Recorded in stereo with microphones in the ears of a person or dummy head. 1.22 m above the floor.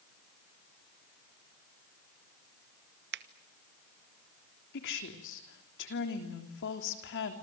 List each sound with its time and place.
3.1 s a finger snap: 50° right (ahead or behind), 0.9 m
4.7 s a woman speaking: 60° left (ahead or behind), 3.5 m